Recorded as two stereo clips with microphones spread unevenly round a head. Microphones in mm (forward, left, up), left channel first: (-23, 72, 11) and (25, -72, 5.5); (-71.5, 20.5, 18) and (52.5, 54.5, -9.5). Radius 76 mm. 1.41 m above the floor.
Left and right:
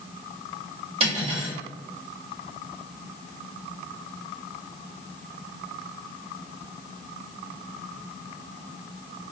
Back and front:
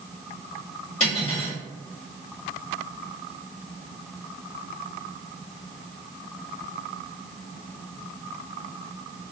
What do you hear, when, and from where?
1.0 s cutlery clinking: 125° right, 1.7 m